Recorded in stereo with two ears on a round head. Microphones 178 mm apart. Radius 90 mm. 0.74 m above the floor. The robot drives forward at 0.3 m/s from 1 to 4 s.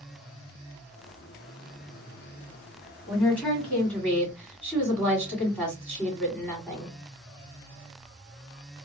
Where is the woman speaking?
10° left (ahead or behind), 2.5 m.